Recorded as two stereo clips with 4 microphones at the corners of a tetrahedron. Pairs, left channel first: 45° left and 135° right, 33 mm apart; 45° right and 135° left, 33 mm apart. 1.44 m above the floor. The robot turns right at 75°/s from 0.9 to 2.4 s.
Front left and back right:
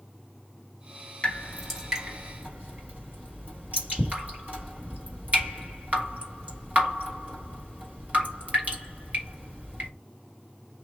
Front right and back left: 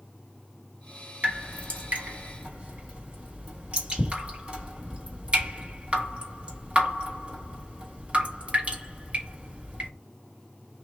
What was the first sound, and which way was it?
Dripping, 95° left.